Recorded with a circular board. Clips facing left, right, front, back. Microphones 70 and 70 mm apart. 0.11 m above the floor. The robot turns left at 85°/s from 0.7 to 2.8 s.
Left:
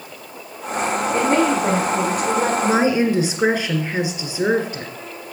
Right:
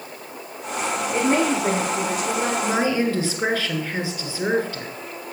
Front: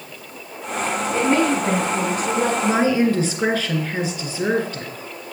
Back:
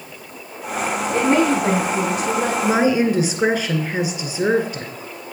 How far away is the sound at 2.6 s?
About 1.5 m.